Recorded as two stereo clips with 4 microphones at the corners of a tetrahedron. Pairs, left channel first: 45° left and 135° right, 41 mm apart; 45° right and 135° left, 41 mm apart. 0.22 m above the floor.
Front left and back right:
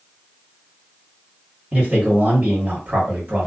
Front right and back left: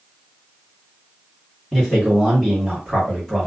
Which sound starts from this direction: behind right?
A man speaking, at 1.7 s.